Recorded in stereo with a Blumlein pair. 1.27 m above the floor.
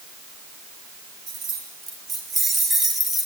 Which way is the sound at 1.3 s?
25° right.